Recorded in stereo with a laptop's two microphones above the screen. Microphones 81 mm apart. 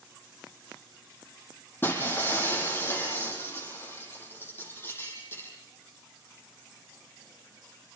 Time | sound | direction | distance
1.8 | breaking glass | 25° left (ahead or behind) | 9.5 m